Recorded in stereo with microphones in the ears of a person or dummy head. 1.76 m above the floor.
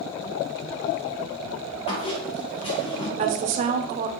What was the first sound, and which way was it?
A squeak, 25° left (ahead or behind).